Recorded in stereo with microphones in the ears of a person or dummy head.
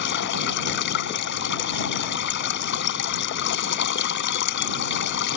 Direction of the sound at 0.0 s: 60° left (ahead or behind).